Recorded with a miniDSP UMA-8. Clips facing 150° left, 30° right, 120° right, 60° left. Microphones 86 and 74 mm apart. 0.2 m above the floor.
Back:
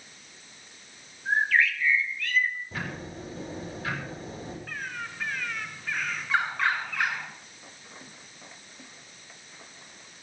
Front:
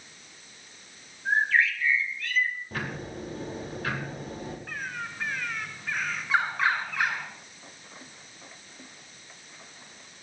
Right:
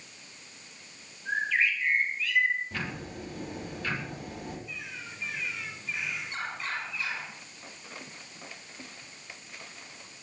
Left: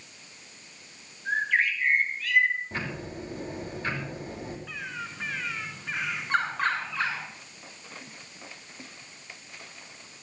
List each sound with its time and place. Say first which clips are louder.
1.2 s a bird: even, left 2 dB; 25° left, 3 m
2.7 s ticking: front 1 dB, left 2 dB; straight ahead, 7 m
4.7 s a bird: front 1 dB, left 5 dB; 45° left, 5.5 m